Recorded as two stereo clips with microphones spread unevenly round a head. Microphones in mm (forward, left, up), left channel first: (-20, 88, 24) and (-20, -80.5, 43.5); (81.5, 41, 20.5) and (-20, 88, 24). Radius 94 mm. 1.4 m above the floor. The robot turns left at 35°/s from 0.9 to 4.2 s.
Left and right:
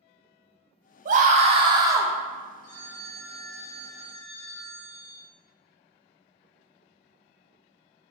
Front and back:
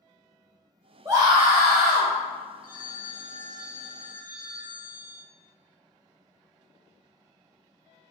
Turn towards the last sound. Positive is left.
turn(degrees=-110)